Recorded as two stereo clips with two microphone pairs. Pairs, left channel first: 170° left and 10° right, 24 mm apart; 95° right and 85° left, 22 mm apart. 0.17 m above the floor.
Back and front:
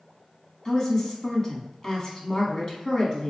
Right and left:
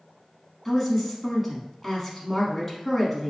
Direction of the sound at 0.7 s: 170° left.